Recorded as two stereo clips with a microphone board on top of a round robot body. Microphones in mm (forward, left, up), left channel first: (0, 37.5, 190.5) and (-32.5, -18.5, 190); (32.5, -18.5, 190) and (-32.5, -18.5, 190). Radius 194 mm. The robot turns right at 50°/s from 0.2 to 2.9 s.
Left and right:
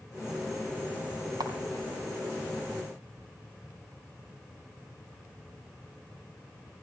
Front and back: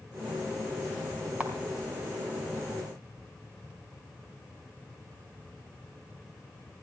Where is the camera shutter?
115° right, 3.5 m; by 1.5 s 105° right, 3.5 m.